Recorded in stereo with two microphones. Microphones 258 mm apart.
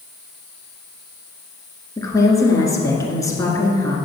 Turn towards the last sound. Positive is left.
turn(degrees=10)  # may be behind; listen again after turning